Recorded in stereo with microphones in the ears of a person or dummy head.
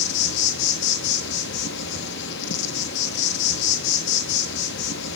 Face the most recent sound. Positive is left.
turn(degrees=65)  # may be behind; listen again after turning